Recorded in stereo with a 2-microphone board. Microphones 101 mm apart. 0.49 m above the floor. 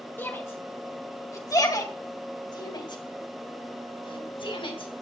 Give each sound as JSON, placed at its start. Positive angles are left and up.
{"t": 0.2, "sound": "a shout", "side_deg": 20, "distance_m": 2.5}